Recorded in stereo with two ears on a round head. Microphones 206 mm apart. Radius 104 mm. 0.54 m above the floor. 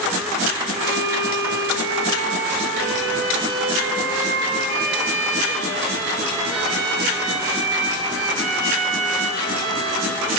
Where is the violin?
60° right (ahead or behind), 1.4 m.